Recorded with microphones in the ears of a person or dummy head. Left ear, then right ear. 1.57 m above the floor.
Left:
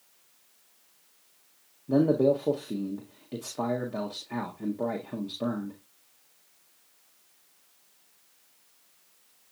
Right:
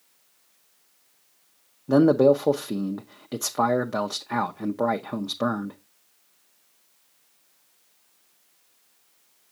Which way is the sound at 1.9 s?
65° right (ahead or behind).